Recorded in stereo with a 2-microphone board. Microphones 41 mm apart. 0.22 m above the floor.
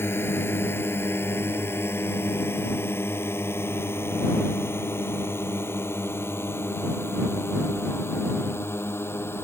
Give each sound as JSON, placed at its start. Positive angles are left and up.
{"t": 0.0, "sound": "a drone", "side_deg": 70}